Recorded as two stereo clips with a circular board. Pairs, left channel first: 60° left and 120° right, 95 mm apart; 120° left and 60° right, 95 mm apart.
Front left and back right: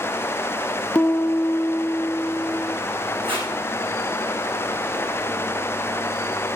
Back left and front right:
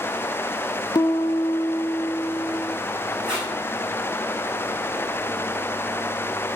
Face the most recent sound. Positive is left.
turn(degrees=-140)